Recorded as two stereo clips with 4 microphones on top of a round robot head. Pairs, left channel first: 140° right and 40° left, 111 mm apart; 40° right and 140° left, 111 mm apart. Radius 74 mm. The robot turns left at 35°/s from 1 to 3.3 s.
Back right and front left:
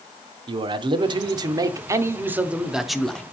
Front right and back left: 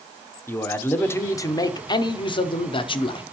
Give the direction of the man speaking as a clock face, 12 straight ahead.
11 o'clock.